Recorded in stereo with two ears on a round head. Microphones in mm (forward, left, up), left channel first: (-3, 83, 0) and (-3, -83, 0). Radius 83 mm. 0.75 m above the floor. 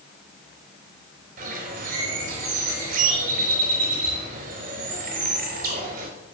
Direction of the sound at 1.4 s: 50° right (ahead or behind).